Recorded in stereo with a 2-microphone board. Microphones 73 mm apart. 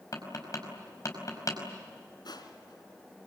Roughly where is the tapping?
Left.